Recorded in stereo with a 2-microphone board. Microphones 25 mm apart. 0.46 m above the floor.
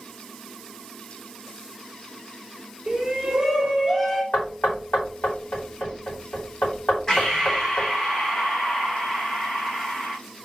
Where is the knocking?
70° left (ahead or behind), 3 m.